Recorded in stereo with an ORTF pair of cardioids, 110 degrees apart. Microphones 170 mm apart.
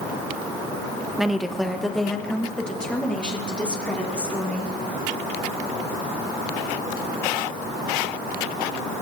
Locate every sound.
1.2 s a woman speaking: 5° right, 1.0 m; by 4.7 s 5° left, 4.5 m